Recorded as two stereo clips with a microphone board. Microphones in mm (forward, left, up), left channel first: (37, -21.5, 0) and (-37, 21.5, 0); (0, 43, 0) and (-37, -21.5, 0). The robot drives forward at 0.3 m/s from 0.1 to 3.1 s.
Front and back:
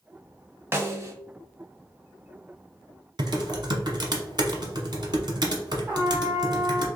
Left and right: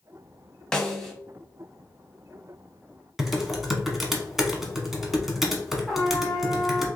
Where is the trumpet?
145° left, 1.0 m.